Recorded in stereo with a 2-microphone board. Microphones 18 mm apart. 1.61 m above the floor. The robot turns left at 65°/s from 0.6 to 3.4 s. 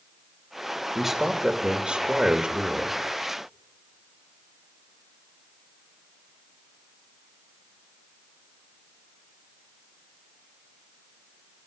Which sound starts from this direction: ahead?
A man speaking, at 0.9 s.